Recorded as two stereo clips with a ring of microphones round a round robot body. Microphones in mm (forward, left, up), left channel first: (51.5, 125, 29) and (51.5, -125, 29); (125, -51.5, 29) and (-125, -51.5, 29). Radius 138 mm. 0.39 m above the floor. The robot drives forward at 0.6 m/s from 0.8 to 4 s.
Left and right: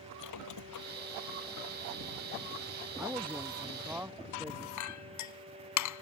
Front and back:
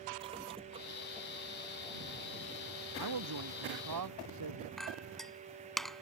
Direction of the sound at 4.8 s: 90° left.